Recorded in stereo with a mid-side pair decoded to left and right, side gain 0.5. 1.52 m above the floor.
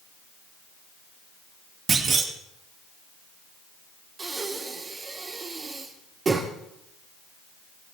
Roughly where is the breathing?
Ahead right.